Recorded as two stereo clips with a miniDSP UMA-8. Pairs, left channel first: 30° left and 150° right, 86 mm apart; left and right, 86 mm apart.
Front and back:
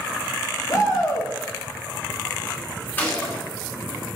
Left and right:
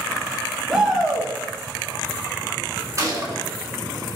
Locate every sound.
0.7 s a shout: 10° right, 1.6 m
3.0 s a gunshot: 40° right, 1.9 m